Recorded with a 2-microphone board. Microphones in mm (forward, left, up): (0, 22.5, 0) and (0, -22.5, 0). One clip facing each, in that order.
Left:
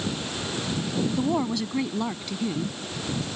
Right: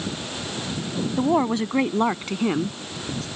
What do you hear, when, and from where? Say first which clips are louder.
1.2 s a woman speaking: right 8 dB; 25° right (ahead or behind); by 3.2 s 55° right (ahead or behind)